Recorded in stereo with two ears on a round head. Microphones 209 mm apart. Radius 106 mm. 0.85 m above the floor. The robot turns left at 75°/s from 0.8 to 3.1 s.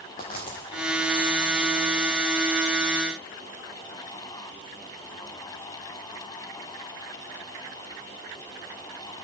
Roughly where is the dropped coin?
Left.